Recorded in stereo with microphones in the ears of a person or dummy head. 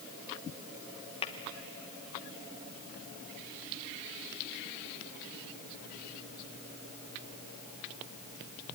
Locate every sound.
1.2 s tapping: 30° left (ahead or behind), 1.0 m